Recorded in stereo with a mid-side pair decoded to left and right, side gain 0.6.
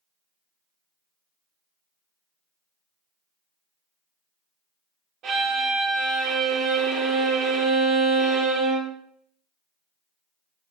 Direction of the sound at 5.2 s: 60° right.